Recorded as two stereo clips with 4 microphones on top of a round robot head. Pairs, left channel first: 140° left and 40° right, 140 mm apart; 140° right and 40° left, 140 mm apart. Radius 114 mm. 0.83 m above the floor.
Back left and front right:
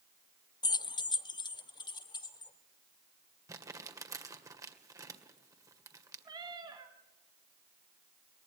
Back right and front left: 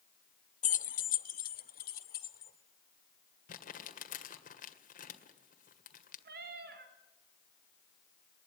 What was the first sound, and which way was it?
Keys jangling, 160° right.